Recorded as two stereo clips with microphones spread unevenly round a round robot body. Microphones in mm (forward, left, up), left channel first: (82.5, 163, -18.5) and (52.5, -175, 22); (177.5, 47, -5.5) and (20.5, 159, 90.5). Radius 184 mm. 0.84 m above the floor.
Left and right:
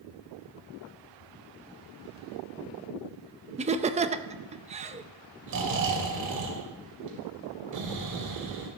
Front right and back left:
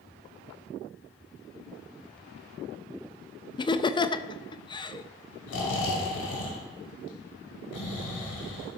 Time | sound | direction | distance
3.6 | laughter | 20° right | 0.5 m
5.5 | snoring | 55° right | 2.5 m